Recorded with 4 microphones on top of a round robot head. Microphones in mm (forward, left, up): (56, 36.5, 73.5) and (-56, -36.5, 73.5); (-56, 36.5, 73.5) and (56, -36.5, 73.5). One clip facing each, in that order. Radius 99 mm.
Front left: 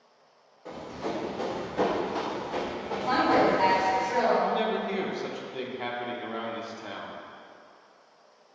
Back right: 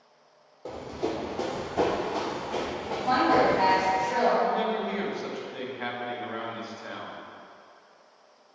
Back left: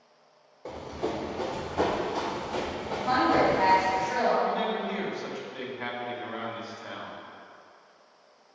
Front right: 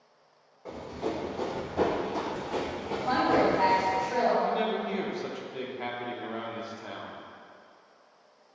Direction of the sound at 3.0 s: 100° right.